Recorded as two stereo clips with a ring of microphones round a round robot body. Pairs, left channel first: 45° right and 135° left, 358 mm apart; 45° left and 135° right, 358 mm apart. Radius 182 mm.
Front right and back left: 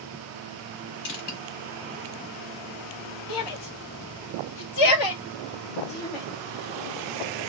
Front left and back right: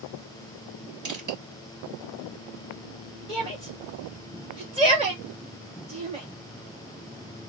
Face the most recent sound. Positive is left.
turn(degrees=-60)